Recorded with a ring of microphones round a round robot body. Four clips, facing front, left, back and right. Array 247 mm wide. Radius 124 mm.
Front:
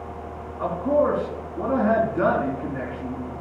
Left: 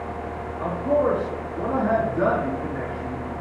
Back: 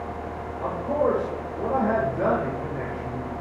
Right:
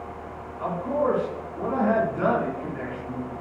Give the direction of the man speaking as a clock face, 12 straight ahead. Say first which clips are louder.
Left 3 dB, front 3 dB; 12 o'clock.